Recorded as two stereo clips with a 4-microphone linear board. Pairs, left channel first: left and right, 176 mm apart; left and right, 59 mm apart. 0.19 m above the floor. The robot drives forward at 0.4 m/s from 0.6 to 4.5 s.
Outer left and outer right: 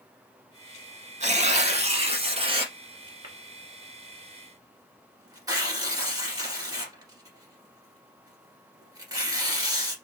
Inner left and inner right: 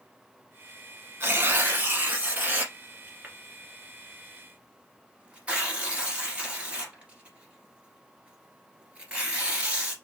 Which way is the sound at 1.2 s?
45° right (ahead or behind).